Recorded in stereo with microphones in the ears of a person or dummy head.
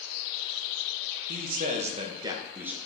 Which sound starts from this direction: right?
A man speaking, at 1.3 s.